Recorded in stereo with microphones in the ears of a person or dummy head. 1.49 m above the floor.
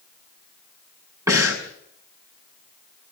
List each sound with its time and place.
1.3 s breathing: 20° right (ahead or behind), 6.5 m